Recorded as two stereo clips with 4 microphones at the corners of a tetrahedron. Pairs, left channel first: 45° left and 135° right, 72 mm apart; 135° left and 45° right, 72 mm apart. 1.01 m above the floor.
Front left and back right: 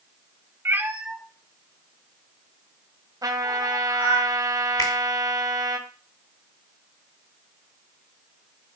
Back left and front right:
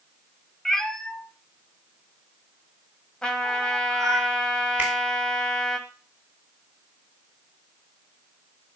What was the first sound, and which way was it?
A cat meowing, 145° right.